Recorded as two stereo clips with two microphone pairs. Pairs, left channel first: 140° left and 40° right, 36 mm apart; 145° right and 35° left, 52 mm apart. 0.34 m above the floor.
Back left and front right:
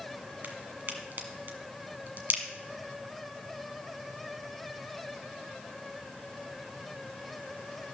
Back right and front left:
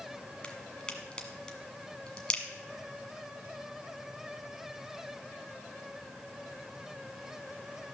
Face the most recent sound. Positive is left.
turn(degrees=-75)